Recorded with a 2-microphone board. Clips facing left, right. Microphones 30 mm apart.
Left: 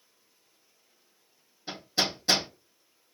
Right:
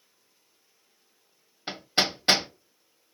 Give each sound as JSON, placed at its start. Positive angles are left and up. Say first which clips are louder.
{"t": 1.7, "sound": "hammering", "louder": "right 3 dB", "side_deg": -50, "distance_m": 0.8}